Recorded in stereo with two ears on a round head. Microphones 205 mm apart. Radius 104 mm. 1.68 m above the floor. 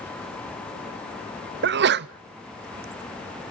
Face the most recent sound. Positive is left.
turn(degrees=-50)  # may be behind; listen again after turning